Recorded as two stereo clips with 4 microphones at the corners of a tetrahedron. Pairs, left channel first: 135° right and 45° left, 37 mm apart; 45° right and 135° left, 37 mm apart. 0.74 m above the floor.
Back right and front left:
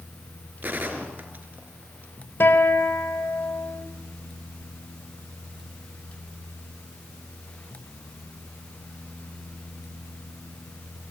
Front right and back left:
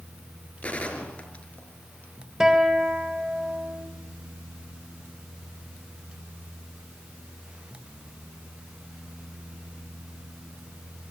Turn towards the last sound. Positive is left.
turn(degrees=-150)